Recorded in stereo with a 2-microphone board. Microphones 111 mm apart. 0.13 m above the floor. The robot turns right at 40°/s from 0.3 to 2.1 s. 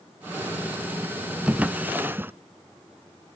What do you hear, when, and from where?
1.5 s a drawer: 10° right (ahead or behind), 0.5 m; by 2.3 s 20° right (ahead or behind), 0.5 m